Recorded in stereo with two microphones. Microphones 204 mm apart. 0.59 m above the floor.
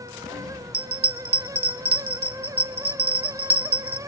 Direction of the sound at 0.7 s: 55° right (ahead or behind).